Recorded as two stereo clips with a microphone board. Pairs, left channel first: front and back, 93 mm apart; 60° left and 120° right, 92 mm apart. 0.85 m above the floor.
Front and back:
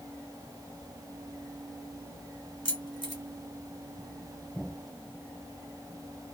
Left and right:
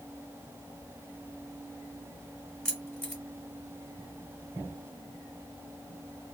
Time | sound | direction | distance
2.6 | keys jangling | 25° right | 1.1 m